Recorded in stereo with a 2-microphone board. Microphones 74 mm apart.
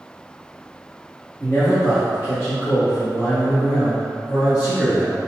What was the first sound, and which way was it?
A man speaking, 25° left (ahead or behind).